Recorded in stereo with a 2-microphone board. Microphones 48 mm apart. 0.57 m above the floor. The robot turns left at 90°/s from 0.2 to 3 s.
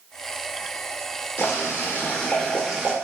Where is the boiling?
115° left, 1.1 m; by 2.9 s 25° right, 1.1 m.